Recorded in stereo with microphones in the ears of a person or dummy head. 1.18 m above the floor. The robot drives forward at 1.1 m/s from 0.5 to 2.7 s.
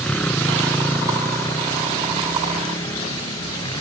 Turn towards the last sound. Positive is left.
turn(degrees=20)  # may be behind; listen again after turning